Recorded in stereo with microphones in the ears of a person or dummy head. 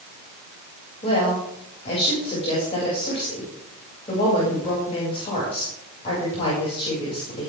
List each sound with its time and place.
1.0 s a woman speaking: 35° left (ahead or behind), 7 m